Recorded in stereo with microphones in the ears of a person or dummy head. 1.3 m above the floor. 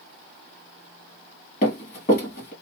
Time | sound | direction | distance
1.6 | running footsteps | 25° left (ahead or behind) | 1.7 m